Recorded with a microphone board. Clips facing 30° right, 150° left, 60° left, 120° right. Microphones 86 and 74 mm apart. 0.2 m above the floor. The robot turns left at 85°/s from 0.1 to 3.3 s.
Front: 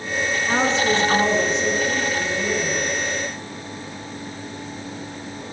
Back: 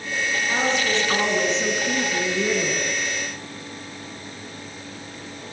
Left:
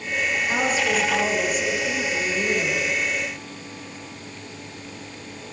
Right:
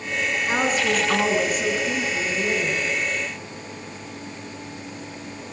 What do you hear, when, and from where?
0.5 s a woman speaking: 65° right, 3 m; by 2.8 s 95° left, 3 m